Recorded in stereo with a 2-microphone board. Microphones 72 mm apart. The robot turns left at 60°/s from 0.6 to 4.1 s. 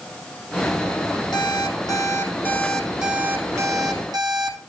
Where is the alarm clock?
90° left, 4.5 m; by 4.6 s 75° right, 4.5 m.